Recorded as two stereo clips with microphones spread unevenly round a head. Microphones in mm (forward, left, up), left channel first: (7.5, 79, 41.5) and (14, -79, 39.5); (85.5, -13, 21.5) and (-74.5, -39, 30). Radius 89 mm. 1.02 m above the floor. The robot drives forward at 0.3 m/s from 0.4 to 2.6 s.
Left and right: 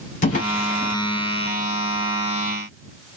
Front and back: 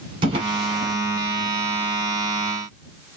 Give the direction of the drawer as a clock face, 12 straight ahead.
8 o'clock.